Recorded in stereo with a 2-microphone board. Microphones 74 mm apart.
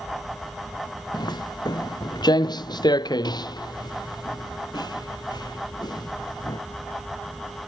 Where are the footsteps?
70° left (ahead or behind).